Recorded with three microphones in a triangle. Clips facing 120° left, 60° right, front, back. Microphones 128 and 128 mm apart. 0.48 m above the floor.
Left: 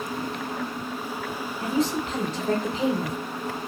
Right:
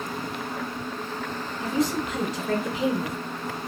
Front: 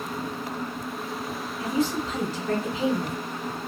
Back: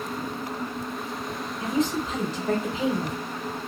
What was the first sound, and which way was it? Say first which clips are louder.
A woman speaking: even, even; 135° left.